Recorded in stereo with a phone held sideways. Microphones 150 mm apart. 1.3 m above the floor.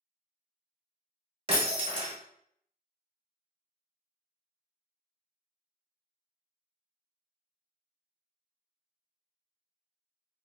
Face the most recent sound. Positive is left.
turn(degrees=-40)  # may be behind; listen again after turning